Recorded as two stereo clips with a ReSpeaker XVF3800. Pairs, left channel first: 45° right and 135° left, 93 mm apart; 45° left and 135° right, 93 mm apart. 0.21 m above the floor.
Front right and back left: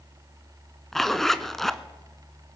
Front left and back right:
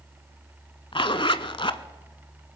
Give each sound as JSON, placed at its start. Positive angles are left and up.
{"t": 0.9, "sound": "a zipper", "azimuth_deg": 40, "distance_m": 0.7}